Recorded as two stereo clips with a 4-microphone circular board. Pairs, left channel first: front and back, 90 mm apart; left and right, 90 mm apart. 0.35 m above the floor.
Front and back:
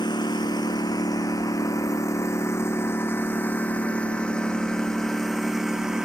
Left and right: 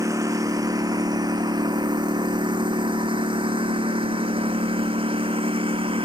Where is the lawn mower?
35° right; by 6.1 s 95° right.